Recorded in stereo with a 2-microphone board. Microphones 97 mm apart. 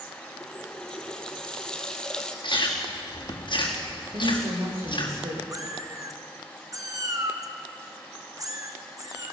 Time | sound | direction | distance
0.4 | a running tap | 10° left (ahead or behind) | 2.0 m
2.4 | chewing | 55° left (ahead or behind) | 4.5 m
4.1 | a woman speaking | 75° right (ahead or behind) | 7 m
5.5 | a cat meowing | 35° right (ahead or behind) | 1.8 m